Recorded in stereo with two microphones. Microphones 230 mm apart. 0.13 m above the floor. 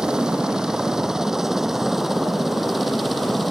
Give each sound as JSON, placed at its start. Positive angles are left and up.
{"t": 0.0, "sound": "a helicopter", "side_deg": -5}